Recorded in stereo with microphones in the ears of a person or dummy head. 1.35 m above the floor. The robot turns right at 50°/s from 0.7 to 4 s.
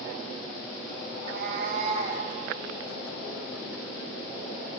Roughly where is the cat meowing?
Right.